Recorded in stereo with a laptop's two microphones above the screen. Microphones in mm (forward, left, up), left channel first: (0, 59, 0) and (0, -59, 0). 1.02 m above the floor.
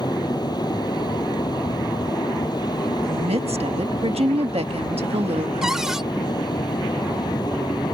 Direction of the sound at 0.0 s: 40° left (ahead or behind).